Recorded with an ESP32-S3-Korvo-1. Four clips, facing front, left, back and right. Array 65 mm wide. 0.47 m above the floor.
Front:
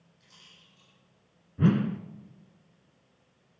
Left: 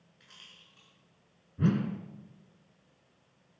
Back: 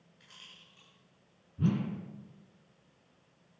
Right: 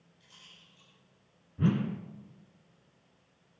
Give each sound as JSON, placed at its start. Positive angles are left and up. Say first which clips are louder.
{"t": 0.2, "sound": "a rattle", "louder": "left 2 dB, back 3 dB", "azimuth_deg": 115, "distance_m": 7.0}
{"t": 1.6, "sound": "a whoosh", "louder": "even, front 7 dB", "azimuth_deg": 10, "distance_m": 0.9}